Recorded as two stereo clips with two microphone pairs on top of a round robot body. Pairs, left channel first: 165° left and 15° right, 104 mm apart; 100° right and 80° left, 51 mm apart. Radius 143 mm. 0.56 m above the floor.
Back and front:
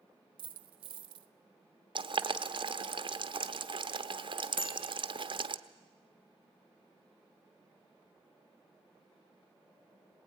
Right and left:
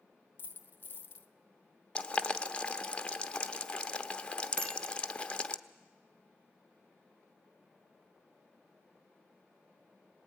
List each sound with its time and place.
0.4 s a dropped coin: 50° right, 0.8 m
1.9 s boiling: 35° right, 1.0 m
4.6 s a bicycle bell: 140° left, 5.5 m